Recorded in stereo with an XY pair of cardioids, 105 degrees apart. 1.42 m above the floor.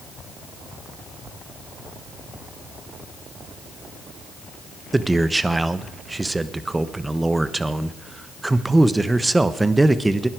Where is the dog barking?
I don't hear a dog barking.